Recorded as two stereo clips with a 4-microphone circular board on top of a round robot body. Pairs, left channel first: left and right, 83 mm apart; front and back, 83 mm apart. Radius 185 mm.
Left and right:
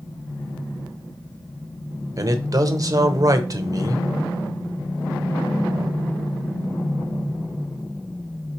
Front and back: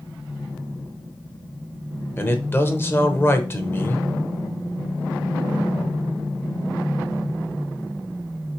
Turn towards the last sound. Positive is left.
turn(degrees=-55)